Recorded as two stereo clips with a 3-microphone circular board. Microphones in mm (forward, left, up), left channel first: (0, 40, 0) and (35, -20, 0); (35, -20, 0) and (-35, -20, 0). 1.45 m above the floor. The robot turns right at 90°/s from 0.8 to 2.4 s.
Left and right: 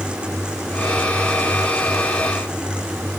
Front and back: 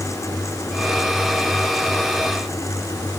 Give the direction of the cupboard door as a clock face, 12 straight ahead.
I don't hear a cupboard door.